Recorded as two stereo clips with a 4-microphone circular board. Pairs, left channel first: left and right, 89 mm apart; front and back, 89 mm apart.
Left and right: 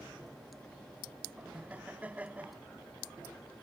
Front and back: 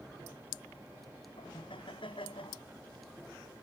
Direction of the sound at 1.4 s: 15° right.